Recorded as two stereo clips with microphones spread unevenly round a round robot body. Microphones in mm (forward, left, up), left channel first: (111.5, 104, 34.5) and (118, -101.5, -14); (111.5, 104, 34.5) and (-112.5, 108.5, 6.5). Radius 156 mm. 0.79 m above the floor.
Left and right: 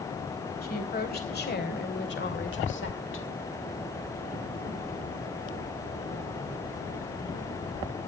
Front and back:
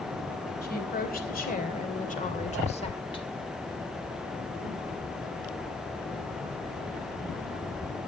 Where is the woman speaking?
45° left, 4.5 m; by 3.3 s 70° left, 2 m.